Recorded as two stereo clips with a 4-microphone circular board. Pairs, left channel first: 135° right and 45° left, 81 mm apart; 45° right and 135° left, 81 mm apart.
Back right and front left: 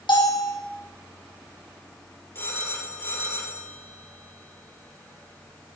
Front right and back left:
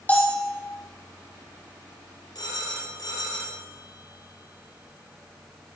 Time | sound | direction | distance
0.1 | a bell | 115° right | 3.5 m
2.4 | a phone ringing | 75° right | 4 m